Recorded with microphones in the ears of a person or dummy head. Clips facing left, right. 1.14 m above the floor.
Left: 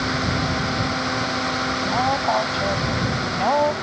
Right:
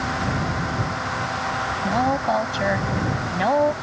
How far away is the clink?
No clink in this recording.